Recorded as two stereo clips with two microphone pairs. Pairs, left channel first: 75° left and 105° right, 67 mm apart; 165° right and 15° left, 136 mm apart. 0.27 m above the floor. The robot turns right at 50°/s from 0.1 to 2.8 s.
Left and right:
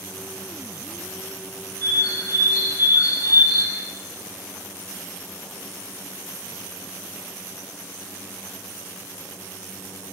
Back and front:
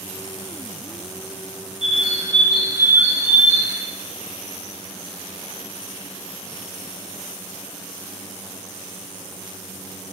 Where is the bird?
35° left, 0.7 m; by 3.8 s 85° left, 0.7 m.